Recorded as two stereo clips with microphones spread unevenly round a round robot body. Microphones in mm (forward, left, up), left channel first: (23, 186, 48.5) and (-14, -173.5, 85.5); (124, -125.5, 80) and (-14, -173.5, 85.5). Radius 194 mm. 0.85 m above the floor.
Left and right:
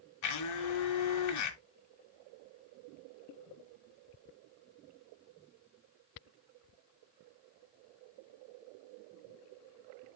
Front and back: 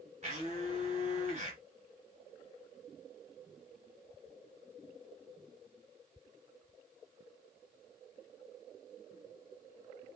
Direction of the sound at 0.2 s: 130° left.